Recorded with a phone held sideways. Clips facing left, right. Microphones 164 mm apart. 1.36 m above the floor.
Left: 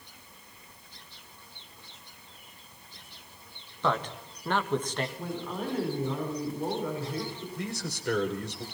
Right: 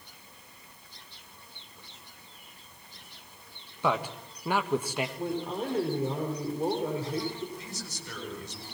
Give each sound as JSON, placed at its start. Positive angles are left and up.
{"t": 3.8, "sound": "a man speaking", "side_deg": -10, "distance_m": 2.0}
{"t": 5.2, "sound": "a woman speaking", "side_deg": -25, "distance_m": 5.0}
{"t": 7.6, "sound": "a man speaking", "side_deg": 65, "distance_m": 4.0}